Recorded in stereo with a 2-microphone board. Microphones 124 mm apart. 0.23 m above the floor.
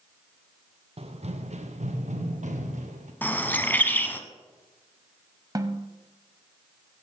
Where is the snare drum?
30° right (ahead or behind), 0.9 m.